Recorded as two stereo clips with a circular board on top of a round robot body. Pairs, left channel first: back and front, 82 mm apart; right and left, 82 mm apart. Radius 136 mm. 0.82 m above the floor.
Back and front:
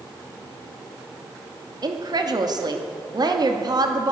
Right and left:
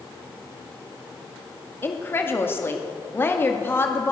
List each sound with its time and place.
1.8 s a woman speaking: 30° right, 2.5 m